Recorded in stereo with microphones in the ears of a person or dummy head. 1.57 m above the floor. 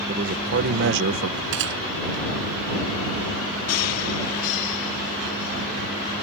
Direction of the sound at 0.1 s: 40° right (ahead or behind).